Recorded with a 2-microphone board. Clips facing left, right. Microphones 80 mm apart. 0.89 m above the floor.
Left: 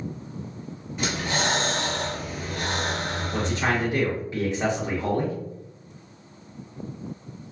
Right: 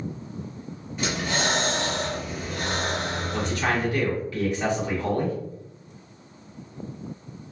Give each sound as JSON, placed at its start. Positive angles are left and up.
{"t": 1.0, "sound": "breathing", "side_deg": 0, "distance_m": 1.7}
{"t": 3.3, "sound": "a man speaking", "side_deg": 25, "distance_m": 1.1}